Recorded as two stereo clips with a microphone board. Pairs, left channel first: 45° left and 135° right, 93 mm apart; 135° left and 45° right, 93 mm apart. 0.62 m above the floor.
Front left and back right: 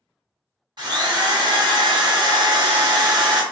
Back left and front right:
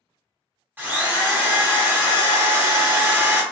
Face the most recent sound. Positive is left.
turn(degrees=-110)